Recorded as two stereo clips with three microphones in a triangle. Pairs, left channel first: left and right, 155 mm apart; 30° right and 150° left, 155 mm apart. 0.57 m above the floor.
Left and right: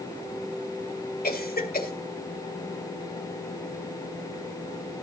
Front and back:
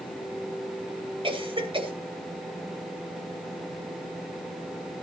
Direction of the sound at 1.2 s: 95° left.